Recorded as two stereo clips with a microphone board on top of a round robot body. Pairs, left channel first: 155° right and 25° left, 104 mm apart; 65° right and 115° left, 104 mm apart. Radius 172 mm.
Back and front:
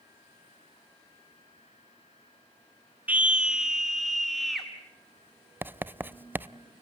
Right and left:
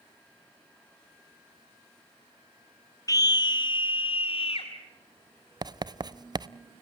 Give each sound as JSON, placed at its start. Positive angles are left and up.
{"t": 3.1, "sound": "a scream", "azimuth_deg": -45, "distance_m": 1.3}
{"t": 5.6, "sound": "writing", "azimuth_deg": 85, "distance_m": 0.8}